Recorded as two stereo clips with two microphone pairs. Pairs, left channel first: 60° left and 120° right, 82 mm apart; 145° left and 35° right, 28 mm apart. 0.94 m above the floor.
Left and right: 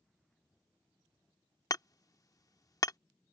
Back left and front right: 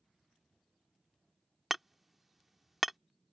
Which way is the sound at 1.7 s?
50° left.